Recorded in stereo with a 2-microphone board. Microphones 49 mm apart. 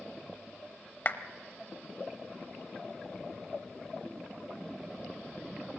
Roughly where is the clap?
Left.